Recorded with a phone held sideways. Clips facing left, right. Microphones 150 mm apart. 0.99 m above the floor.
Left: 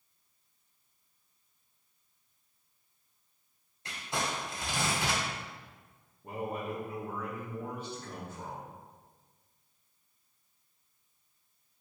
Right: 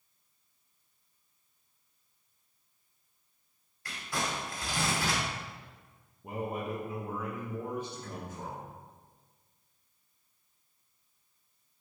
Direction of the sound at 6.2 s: 15° right (ahead or behind).